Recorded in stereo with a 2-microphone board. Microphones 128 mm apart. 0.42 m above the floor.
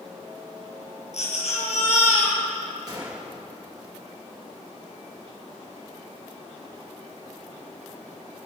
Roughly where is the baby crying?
Left.